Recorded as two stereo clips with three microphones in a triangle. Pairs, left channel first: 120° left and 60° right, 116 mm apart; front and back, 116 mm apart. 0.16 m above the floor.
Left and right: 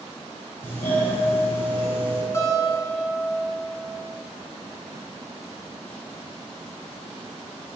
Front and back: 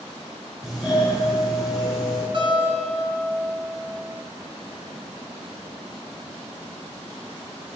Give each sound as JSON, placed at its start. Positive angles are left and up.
{"t": 0.6, "sound": "a doorbell", "azimuth_deg": 110, "distance_m": 1.8}
{"t": 2.3, "sound": "a guitar", "azimuth_deg": 175, "distance_m": 1.1}